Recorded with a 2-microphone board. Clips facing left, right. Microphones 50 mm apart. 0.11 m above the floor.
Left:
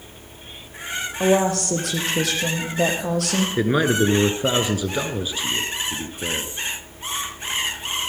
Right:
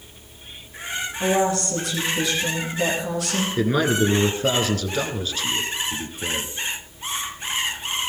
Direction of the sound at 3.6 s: 15° left (ahead or behind).